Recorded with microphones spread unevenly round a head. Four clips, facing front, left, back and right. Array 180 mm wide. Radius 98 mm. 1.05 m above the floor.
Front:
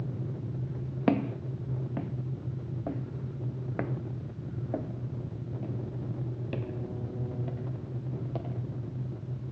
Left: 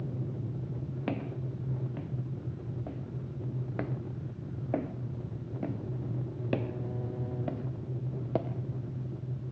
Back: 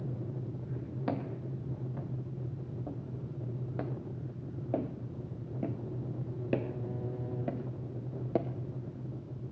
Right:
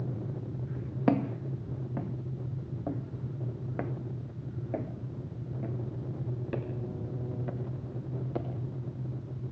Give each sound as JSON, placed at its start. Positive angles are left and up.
{"t": 1.1, "sound": "footsteps", "azimuth_deg": -30, "distance_m": 2.0}